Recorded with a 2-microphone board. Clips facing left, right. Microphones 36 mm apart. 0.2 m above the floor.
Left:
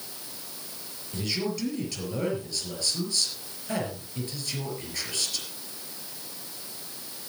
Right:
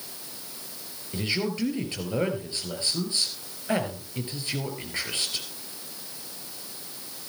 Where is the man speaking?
30° right (ahead or behind), 4.5 m.